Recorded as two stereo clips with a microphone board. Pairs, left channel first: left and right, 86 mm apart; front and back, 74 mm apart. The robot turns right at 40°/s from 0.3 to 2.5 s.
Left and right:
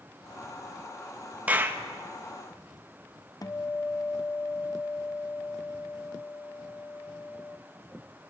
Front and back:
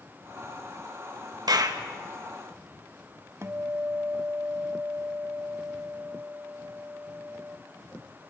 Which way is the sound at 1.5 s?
160° right.